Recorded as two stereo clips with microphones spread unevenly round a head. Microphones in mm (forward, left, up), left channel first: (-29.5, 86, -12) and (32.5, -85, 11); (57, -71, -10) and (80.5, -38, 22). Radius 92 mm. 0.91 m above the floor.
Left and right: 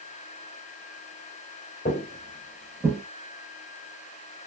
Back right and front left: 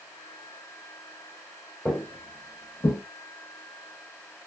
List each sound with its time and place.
1.9 s footsteps: 95° left, 1.0 m; by 3.0 s 135° right, 1.3 m